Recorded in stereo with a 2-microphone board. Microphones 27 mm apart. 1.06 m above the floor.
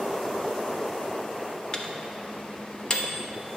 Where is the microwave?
35° left (ahead or behind), 0.8 m.